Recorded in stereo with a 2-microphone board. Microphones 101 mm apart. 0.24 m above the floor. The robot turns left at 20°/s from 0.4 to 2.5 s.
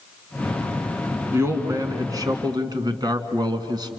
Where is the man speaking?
25° right (ahead or behind), 2.0 m; by 3.9 s 45° right (ahead or behind), 2.0 m.